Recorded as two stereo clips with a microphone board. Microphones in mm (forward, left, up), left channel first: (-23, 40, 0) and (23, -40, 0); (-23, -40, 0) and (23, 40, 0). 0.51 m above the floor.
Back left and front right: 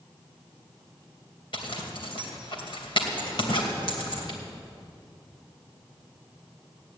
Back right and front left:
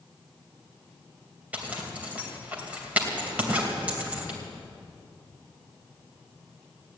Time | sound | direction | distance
1.5 | a zipper | 135° left | 2.5 m